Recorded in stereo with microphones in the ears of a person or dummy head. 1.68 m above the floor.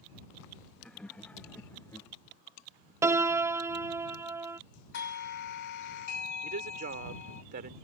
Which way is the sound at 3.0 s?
15° right (ahead or behind).